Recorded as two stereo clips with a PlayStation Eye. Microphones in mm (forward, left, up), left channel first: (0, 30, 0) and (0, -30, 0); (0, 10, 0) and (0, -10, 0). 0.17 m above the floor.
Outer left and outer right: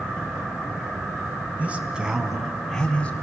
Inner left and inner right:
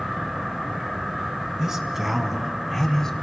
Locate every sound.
1.6 s a man speaking: 25° right (ahead or behind), 1.6 m; by 3.1 s 20° left (ahead or behind), 1.4 m